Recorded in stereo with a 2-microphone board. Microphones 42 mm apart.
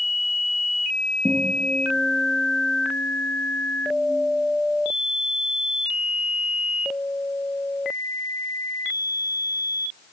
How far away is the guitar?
About 7 m.